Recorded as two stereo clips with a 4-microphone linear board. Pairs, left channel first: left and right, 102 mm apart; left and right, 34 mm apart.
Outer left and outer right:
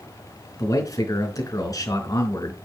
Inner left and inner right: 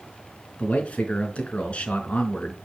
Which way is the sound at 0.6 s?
35° left (ahead or behind).